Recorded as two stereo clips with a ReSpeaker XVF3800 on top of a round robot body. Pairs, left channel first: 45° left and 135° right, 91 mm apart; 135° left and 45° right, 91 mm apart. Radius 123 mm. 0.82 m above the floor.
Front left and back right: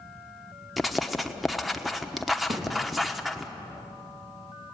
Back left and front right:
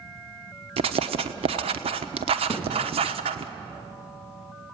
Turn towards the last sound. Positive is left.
turn(degrees=-110)